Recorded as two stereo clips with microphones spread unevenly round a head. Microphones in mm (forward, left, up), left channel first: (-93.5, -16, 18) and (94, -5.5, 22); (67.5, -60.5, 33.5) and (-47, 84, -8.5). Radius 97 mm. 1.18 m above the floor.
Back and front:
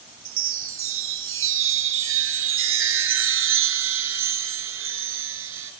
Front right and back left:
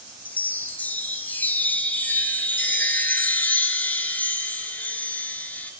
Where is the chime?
25° left, 4 m.